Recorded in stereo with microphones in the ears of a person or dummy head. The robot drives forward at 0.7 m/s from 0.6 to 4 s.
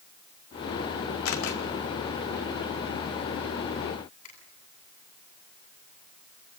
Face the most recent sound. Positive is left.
turn(degrees=45)  # may be behind; listen again after turning